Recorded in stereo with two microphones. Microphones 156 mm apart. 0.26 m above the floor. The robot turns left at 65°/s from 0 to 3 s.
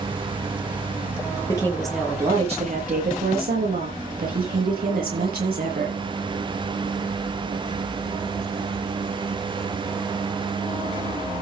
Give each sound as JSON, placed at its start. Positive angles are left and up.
{"t": 1.5, "sound": "a woman speaking", "azimuth_deg": 25, "distance_m": 7.0}